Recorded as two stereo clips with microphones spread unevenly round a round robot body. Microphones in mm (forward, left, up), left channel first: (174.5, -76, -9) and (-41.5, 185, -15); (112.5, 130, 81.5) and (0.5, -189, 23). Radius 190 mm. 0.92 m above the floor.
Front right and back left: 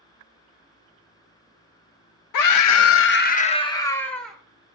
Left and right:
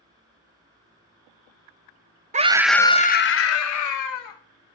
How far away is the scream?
About 0.7 m.